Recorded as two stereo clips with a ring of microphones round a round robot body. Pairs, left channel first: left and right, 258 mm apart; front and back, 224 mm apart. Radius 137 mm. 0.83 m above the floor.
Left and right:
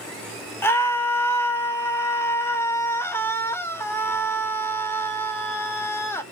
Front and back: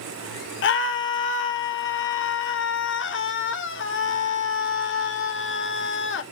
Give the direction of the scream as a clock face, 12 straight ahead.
12 o'clock.